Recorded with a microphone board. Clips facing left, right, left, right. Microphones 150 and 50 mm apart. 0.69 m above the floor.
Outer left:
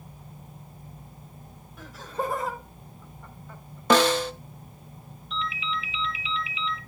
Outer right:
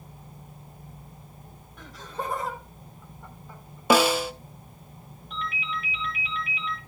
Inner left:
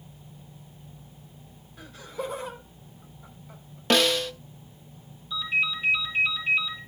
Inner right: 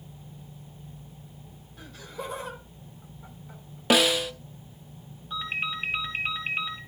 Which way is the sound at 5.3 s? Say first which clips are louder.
Outer left 2 dB, inner left 4 dB; 55° right (ahead or behind).